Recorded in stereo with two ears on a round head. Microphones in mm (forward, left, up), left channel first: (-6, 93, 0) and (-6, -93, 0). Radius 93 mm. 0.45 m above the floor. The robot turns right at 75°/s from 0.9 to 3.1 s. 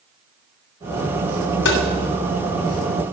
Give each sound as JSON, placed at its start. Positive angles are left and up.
{"t": 1.6, "sound": "tapping", "side_deg": 60, "distance_m": 2.5}